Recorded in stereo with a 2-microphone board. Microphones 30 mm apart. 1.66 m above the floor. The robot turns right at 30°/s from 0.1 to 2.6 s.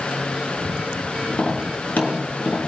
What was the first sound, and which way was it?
Tapping, 80° left.